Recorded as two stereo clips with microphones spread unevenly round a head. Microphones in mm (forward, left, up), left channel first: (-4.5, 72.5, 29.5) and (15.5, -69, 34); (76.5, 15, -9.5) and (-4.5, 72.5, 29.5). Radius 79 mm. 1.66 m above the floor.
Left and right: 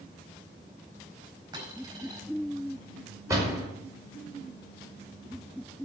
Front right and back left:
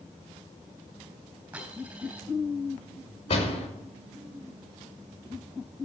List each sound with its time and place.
1.5 s a dropped coin: 145° right, 4.5 m
3.3 s a door slam: 15° right, 5 m